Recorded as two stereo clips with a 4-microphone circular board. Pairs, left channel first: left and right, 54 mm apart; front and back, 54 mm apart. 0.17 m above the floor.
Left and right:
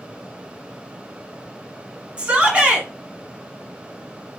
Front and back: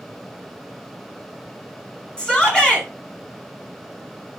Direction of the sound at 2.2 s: 50° right.